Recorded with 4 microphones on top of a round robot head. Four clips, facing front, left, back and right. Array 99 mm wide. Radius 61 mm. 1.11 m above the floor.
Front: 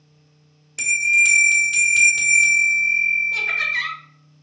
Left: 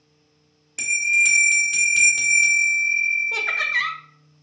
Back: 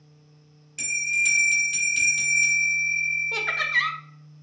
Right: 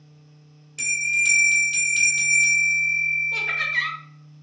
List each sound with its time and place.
0.8 s a bell: 50° left, 1.5 m
3.3 s laughter: 135° left, 0.9 m